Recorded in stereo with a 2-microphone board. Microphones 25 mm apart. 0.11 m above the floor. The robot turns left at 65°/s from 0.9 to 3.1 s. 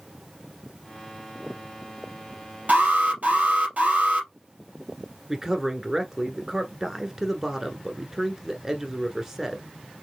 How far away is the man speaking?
About 1.1 m.